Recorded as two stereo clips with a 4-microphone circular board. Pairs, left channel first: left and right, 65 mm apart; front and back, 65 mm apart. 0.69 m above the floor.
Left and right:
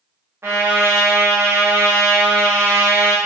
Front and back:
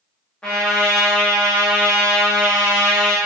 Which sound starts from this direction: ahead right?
A trumpet, at 0.4 s.